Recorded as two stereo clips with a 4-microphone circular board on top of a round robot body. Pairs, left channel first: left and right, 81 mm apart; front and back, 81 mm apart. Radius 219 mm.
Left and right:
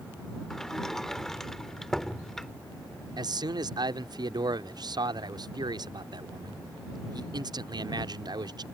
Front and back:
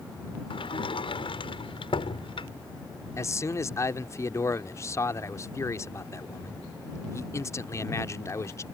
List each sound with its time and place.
0.5 s a sliding door: 5° left
3.2 s a man speaking: 55° right